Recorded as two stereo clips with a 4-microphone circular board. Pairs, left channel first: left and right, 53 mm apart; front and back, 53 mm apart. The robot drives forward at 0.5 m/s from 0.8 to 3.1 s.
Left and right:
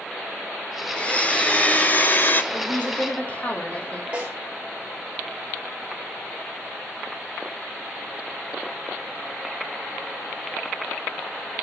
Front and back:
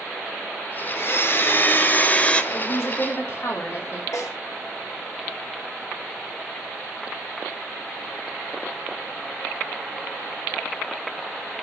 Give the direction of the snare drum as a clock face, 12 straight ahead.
1 o'clock.